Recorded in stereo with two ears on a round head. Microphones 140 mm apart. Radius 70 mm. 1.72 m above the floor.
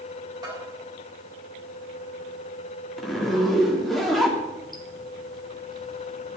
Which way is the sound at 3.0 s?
Centre (ahead or behind).